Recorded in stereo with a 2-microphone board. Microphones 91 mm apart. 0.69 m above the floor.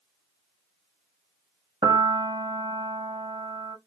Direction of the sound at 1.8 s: 50° right (ahead or behind).